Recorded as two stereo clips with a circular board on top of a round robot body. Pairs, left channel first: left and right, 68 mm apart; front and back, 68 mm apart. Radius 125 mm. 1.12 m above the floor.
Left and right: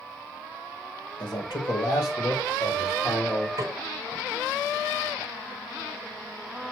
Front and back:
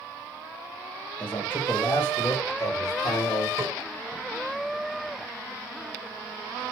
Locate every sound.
1.2 s a man speaking: 75° left, 1.9 m; by 3.5 s 25° left, 1.6 m
3.6 s a snare drum: 130° right, 0.8 m